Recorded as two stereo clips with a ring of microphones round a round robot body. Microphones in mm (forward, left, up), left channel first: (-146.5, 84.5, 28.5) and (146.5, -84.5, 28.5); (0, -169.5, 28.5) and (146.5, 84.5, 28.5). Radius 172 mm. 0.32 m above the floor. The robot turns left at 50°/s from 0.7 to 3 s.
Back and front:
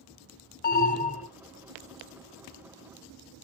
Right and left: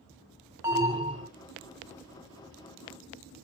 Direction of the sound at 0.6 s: 135° left.